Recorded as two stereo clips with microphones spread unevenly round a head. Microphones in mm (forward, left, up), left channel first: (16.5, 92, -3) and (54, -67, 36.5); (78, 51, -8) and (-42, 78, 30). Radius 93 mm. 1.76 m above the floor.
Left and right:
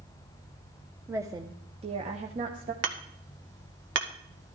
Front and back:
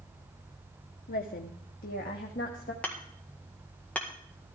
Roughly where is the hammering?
Right.